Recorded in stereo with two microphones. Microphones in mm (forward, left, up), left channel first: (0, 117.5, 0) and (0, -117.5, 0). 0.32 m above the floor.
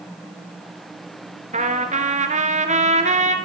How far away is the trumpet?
About 1.1 m.